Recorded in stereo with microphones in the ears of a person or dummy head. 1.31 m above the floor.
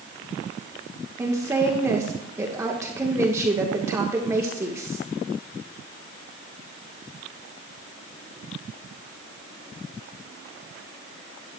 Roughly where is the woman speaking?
Right.